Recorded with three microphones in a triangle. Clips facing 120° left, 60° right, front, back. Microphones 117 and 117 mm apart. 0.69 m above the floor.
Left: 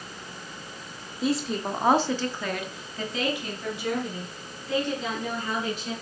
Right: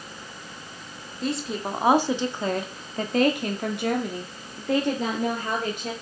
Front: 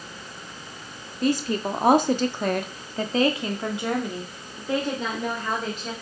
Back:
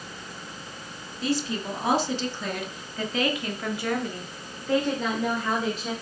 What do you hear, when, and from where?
1.2 s a woman speaking: 35° left, 1.9 m; by 5.9 s 90° right, 3.5 m